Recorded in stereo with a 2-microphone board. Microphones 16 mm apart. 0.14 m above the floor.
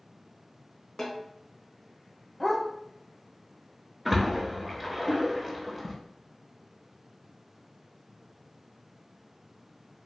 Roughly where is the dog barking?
Left.